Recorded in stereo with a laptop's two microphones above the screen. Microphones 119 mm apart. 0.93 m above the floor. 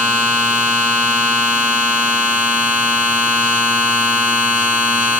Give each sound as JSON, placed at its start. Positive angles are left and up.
{"t": 0.0, "sound": "a machine running", "side_deg": -5, "distance_m": 5.0}